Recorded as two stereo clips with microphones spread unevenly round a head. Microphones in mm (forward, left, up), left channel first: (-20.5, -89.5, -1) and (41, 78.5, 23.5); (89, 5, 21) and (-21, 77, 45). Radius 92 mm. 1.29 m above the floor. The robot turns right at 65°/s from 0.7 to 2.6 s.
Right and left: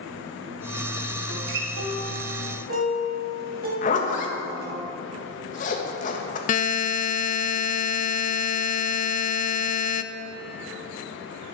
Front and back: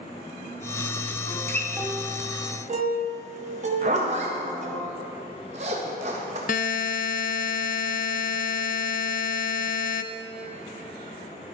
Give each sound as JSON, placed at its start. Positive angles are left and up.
{"t": 1.3, "sound": "a guitar", "azimuth_deg": 30, "distance_m": 2.0}
{"t": 3.8, "sound": "a zipper", "azimuth_deg": -160, "distance_m": 1.5}
{"t": 6.5, "sound": "a buzzer", "azimuth_deg": -70, "distance_m": 0.5}